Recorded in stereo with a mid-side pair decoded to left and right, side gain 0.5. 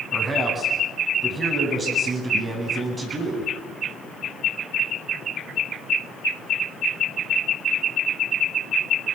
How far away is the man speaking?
About 9.5 m.